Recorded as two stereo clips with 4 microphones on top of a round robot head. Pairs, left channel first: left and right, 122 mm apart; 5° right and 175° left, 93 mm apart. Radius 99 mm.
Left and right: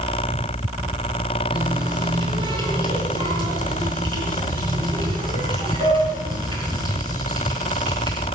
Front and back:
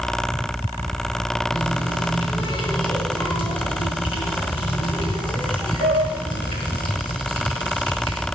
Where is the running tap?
35° right, 4.5 m.